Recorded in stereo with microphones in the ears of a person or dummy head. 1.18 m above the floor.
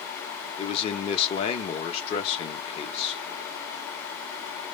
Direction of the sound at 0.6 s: 35° left (ahead or behind).